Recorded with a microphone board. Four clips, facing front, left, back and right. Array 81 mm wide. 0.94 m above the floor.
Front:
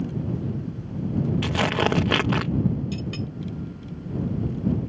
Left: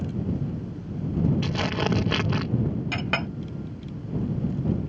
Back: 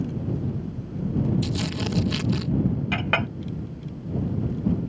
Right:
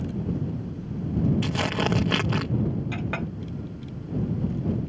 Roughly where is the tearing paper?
Ahead.